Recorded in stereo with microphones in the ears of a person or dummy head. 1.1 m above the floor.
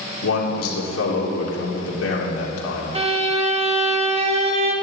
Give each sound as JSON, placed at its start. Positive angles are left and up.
{"t": 0.2, "sound": "a man speaking", "side_deg": 85, "distance_m": 3.0}
{"t": 3.0, "sound": "a violin", "side_deg": -30, "distance_m": 1.1}